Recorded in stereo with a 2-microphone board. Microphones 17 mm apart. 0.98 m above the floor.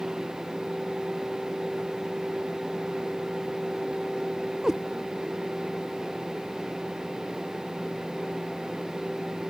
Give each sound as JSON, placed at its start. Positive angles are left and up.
{"t": 4.6, "sound": "a cat meowing", "side_deg": -35}